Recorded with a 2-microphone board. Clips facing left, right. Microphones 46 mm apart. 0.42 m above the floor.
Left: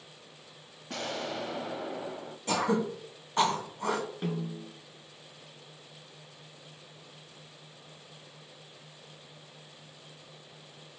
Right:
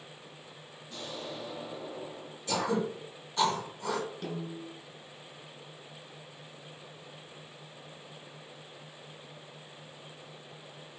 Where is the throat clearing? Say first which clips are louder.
Left 2 dB; 50° left (ahead or behind), 2.5 m.